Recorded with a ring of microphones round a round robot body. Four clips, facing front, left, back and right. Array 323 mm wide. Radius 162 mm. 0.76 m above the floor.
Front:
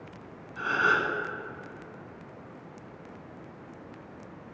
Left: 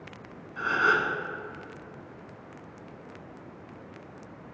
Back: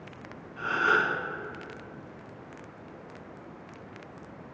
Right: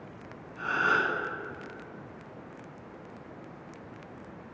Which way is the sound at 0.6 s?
50° left.